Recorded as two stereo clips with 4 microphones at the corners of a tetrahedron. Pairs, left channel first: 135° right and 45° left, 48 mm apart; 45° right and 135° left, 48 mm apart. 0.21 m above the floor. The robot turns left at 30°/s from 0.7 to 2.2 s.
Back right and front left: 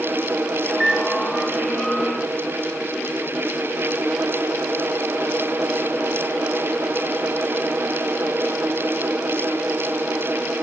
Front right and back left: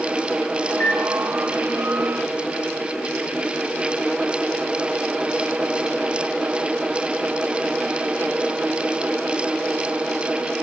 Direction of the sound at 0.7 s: 35° right.